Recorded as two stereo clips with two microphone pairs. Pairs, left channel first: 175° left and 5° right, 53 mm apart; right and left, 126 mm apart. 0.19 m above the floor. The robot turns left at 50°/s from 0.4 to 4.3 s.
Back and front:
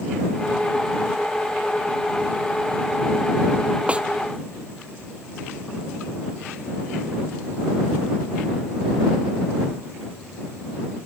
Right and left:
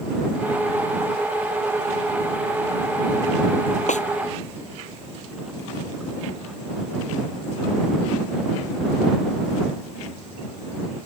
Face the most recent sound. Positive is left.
turn(degrees=-95)